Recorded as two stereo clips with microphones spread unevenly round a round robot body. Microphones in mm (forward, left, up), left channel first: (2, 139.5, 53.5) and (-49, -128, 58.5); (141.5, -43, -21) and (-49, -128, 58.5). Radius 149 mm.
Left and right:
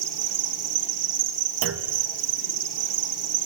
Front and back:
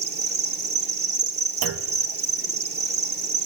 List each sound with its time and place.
0.0 s an insect: 115° right, 1.5 m
1.6 s a clunk: 140° right, 0.7 m